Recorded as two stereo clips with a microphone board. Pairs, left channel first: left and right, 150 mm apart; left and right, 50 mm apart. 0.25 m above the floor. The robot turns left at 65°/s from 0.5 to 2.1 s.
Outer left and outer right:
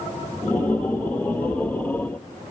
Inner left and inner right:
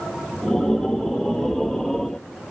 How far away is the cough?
I don't hear a cough.